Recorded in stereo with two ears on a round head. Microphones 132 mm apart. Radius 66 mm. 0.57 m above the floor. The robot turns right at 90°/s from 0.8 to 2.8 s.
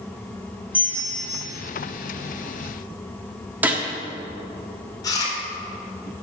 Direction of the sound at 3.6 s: 10° right (ahead or behind).